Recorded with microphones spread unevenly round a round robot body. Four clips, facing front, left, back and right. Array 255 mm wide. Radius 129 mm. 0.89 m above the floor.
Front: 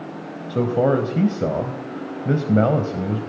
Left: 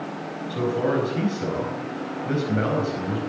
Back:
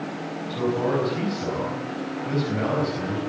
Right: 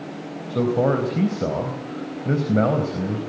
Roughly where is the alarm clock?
No alarm clock in this recording.